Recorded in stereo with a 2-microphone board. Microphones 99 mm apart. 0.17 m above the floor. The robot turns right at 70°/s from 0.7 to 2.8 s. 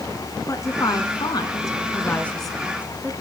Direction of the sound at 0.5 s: 50° left.